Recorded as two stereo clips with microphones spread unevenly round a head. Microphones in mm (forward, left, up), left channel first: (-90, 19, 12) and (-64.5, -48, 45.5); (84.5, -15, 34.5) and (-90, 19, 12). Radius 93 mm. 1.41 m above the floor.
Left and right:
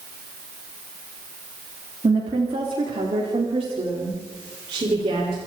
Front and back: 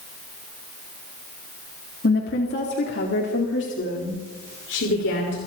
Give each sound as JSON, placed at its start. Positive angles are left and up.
{"t": 2.0, "sound": "a woman speaking", "azimuth_deg": -45, "distance_m": 3.5}